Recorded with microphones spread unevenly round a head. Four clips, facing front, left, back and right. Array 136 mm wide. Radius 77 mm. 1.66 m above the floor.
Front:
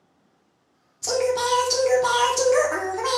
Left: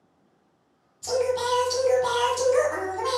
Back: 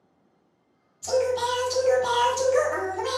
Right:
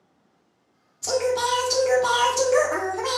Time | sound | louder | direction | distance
1.0 | singing | right 1 dB, front 1 dB | 40° right | 0.8 m